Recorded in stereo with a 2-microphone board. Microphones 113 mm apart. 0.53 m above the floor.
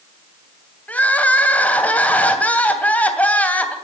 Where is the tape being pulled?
I don't hear tape being pulled.